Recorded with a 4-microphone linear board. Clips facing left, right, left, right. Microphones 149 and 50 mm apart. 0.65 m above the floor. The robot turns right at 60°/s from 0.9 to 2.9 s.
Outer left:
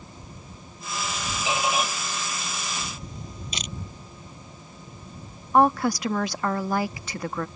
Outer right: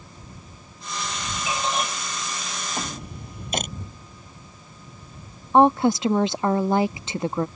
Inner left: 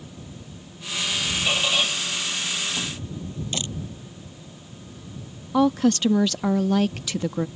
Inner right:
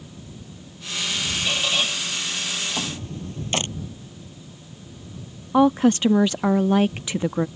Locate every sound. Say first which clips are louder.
1.5 s a squeak: outer left 1 dB, inner left 1 dB; 25° left (ahead or behind); by 3.6 s 65° right (ahead or behind)
3.5 s a camera shutter: outer right 10 dB, inner right 7 dB; 50° right (ahead or behind)
5.5 s a woman speaking: outer right 3 dB, inner right 3 dB; 25° right (ahead or behind)